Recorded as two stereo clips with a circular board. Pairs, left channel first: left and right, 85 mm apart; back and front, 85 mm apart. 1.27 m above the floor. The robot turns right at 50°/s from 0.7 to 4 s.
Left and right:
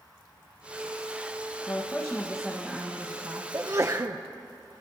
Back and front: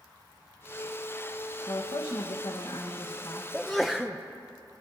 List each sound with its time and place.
1.7 s a woman speaking: 150° left, 1.3 m; by 3.4 s 125° right, 1.3 m
3.5 s a sneeze: 105° right, 0.5 m; by 4.2 s 80° right, 0.5 m